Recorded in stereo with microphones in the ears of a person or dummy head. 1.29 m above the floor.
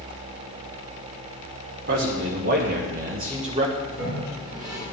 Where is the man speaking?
55° right (ahead or behind), 2.5 m; by 3.8 s 35° right (ahead or behind), 1.7 m.